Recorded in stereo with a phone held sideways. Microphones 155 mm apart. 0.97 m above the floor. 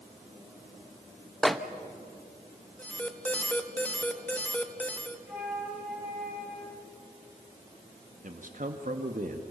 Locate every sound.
1.4 s a microwave: centre (ahead or behind), 0.9 m
2.8 s an alarm: 10° left (ahead or behind), 1.4 m
5.3 s a flute: 10° right (ahead or behind), 6 m
8.2 s a man speaking: 55° right (ahead or behind), 1.4 m